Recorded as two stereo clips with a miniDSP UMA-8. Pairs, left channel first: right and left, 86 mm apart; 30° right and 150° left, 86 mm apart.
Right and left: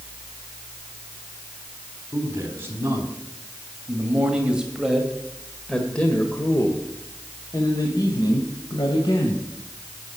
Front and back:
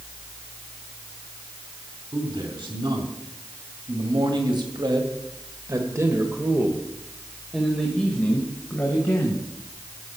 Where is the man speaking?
150° left, 3.5 m; by 9.5 s 90° right, 2.5 m.